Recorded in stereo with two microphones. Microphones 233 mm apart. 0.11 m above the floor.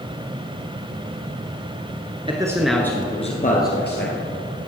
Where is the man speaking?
20° right (ahead or behind), 1.3 m; by 4.2 s 50° left (ahead or behind), 2 m.